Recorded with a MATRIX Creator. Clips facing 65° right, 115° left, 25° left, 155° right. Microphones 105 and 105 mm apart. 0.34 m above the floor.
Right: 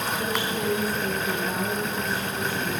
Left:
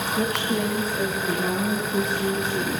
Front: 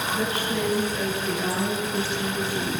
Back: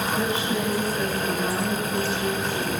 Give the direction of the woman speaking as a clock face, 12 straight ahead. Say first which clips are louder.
Left 3 dB, even; 8 o'clock.